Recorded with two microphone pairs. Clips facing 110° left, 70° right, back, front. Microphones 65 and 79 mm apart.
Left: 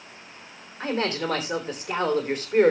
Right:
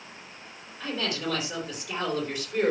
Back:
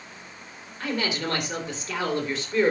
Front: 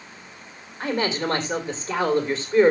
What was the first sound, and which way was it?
A man speaking, 65° left.